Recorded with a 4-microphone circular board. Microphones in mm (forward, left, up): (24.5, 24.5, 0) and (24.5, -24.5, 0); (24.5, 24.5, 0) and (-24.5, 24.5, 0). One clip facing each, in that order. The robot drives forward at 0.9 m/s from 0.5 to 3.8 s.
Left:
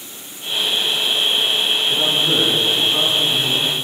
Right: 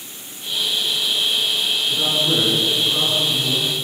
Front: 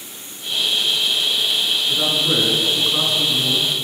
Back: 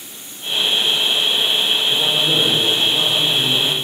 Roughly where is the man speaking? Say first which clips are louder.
Even, back 2 dB; ahead.